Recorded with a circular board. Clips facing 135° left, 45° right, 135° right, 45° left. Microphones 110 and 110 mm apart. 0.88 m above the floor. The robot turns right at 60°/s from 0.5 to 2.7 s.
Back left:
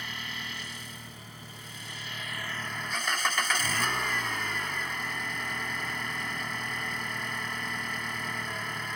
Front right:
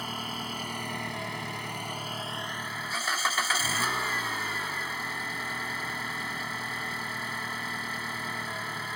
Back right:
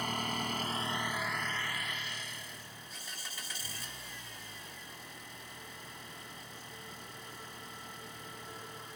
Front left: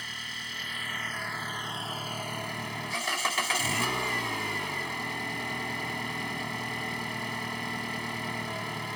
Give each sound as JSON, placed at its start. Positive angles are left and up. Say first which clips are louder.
{"t": 0.0, "sound": "an engine running", "louder": "front right 5 dB, back right 8 dB", "azimuth_deg": -95}